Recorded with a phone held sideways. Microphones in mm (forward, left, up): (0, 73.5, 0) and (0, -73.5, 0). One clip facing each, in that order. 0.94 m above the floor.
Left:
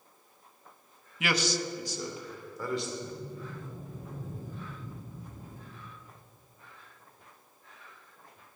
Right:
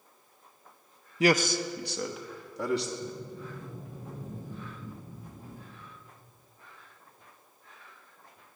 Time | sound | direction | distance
1.2 | a man speaking | 35° right (ahead or behind) | 0.5 m
3.0 | a sliding door | 85° right | 4 m